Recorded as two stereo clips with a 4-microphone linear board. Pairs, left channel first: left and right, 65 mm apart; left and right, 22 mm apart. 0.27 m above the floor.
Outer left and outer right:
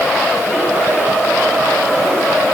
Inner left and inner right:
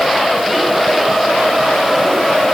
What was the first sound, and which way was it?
Only background noise.